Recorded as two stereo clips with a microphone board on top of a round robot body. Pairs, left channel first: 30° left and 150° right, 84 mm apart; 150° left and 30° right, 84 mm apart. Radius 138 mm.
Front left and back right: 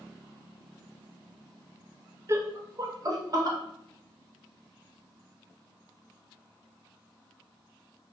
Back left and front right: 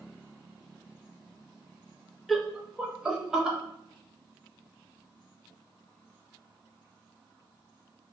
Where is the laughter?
120° right, 0.6 m; by 3.6 s 110° right, 1.1 m.